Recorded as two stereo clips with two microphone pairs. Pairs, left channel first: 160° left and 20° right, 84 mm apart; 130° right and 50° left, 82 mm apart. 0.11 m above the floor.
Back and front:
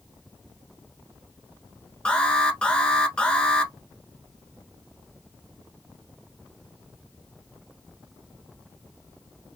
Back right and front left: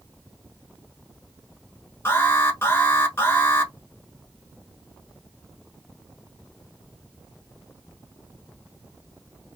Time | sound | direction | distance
2.0 | an alarm | 125° right | 0.9 m